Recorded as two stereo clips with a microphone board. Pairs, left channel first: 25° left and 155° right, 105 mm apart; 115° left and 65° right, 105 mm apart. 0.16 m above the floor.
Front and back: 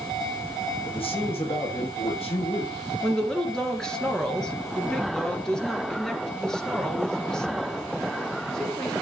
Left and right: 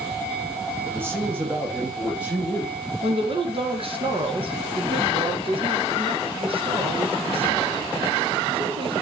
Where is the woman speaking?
60° right, 2.5 m.